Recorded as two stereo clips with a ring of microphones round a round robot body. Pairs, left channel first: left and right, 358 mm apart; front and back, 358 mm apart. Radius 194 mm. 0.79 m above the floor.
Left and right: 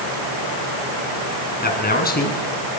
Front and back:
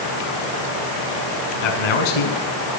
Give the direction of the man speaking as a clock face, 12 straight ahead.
11 o'clock.